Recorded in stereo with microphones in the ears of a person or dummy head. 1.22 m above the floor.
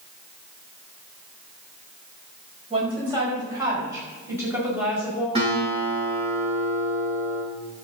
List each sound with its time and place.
2.7 s a woman speaking: 25° right (ahead or behind), 5.5 m; by 5.2 s 5° right (ahead or behind), 5 m
5.3 s a guitar: 25° right (ahead or behind), 6 m